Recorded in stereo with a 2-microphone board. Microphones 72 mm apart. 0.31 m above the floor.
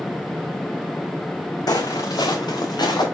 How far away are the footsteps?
About 0.7 m.